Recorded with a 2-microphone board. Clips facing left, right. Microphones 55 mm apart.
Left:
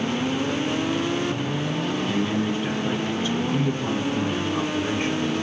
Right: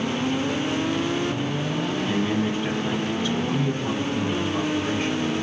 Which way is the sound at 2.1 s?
15° right (ahead or behind).